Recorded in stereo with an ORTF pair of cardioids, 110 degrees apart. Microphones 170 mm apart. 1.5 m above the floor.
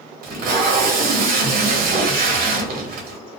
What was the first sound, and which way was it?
Tape being pulled, 60° right.